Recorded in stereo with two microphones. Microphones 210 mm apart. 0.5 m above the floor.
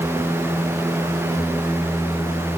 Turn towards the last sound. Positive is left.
No sound to turn to.